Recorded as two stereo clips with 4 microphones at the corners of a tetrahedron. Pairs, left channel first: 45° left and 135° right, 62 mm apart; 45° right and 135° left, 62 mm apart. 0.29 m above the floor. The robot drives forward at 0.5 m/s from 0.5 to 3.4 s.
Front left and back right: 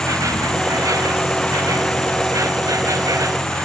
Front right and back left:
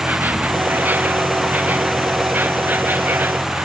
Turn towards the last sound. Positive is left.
turn(degrees=-165)